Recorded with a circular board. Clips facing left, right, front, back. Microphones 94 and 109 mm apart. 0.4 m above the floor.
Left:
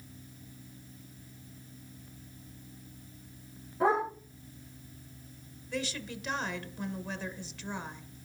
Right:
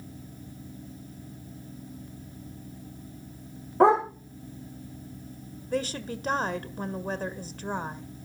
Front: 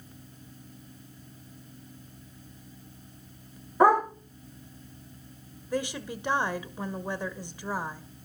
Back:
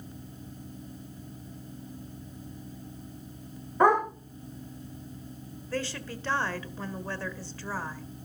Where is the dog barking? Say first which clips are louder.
Right 8 dB, front 2 dB; 80° right, 8.5 m.